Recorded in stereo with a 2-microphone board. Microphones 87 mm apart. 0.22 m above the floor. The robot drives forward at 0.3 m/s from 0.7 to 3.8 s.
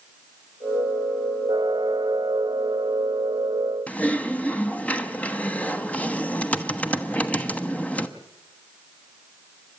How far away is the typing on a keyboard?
About 1.1 m.